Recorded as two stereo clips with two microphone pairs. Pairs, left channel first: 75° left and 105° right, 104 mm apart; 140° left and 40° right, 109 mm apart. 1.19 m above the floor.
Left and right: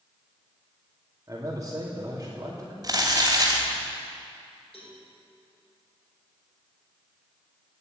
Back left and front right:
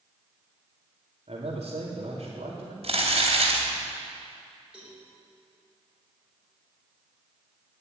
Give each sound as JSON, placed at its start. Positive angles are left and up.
{"t": 1.3, "sound": "a man speaking", "azimuth_deg": -45, "distance_m": 2.5}
{"t": 2.8, "sound": "crumpling", "azimuth_deg": -55, "distance_m": 3.0}
{"t": 4.7, "sound": "a cowbell", "azimuth_deg": 45, "distance_m": 5.0}